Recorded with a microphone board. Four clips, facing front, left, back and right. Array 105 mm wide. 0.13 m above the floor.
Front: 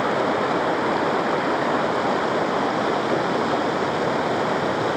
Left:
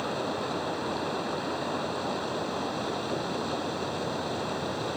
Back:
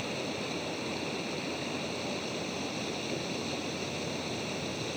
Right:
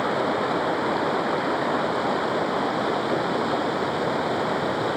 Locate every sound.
0.0 s running water: 25° right